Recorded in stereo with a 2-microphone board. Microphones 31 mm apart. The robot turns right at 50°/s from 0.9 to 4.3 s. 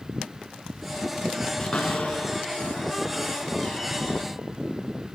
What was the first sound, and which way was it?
A cupboard door, 20° left (ahead or behind).